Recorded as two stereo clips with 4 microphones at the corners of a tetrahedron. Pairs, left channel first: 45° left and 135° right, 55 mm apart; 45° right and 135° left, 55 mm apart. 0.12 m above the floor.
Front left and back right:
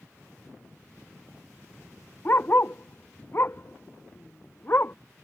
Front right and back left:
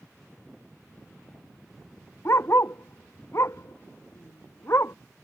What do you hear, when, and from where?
2.2 s a dog barking: 5° right